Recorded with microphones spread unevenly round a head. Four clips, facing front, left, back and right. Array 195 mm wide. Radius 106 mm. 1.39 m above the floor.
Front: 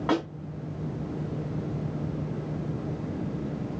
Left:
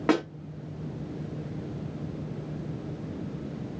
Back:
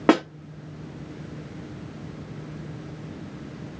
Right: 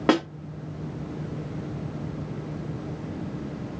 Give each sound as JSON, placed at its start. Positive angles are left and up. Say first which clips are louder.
{"t": 0.1, "sound": "a snare drum", "louder": "right 3 dB, back 8 dB", "azimuth_deg": -170, "distance_m": 4.0}